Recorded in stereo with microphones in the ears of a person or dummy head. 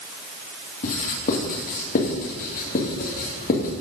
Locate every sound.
0.8 s writing: 45° left (ahead or behind), 2 m